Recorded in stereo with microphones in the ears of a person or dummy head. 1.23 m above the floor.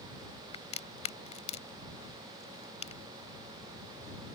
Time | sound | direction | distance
0.5 | a crack | 35° left (ahead or behind) | ?